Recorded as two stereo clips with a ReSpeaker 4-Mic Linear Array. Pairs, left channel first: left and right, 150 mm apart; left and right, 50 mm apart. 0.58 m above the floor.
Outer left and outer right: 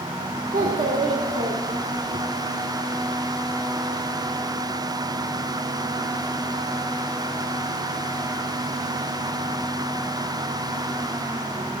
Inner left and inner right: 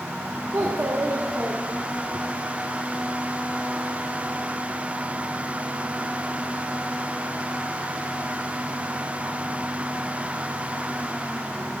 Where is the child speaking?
65° right (ahead or behind), 1.0 m.